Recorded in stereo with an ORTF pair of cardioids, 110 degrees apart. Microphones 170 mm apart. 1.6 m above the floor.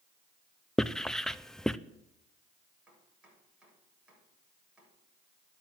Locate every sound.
0.8 s writing: 5° left, 0.6 m
2.9 s chopping: 5° right, 8 m